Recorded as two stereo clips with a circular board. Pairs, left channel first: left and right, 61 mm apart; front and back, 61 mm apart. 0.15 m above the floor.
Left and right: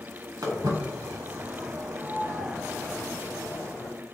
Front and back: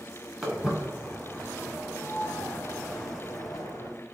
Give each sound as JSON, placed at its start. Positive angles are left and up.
{"t": 0.4, "sound": "footsteps", "azimuth_deg": -100, "distance_m": 1.1}